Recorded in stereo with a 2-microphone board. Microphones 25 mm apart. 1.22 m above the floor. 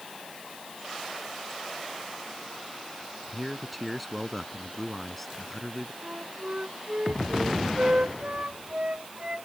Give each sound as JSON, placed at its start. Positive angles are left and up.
{"t": 3.3, "sound": "a man speaking", "side_deg": 0}
{"t": 6.0, "sound": "a flute", "side_deg": -60}